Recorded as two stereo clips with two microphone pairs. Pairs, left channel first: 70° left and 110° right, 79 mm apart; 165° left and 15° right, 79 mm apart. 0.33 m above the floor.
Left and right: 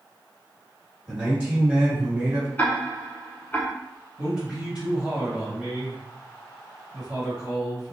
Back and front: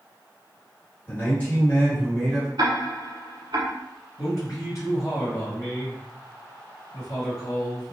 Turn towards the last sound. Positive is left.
turn(degrees=175)